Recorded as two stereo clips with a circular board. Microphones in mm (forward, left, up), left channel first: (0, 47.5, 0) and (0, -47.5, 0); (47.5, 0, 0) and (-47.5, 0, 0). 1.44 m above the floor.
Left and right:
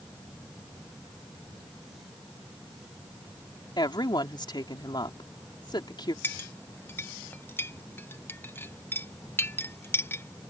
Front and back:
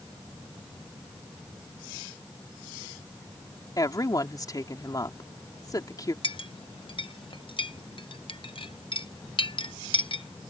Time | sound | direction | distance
3.8 | a woman speaking | 50° left | ?
6.2 | a clink | 20° left | ?